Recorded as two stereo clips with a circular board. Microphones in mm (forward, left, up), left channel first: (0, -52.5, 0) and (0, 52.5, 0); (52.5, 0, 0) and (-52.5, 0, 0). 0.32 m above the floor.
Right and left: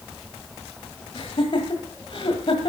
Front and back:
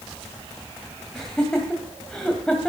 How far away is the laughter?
About 1.9 m.